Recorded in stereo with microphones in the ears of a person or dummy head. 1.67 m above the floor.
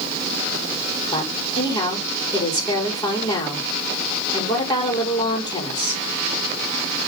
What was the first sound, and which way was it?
A woman speaking, 25° left (ahead or behind).